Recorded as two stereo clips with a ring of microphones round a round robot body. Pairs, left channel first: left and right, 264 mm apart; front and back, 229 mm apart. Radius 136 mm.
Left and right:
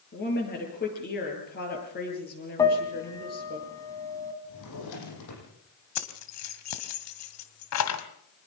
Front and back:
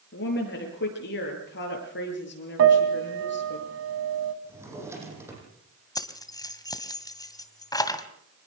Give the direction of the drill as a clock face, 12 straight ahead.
No drill in this recording.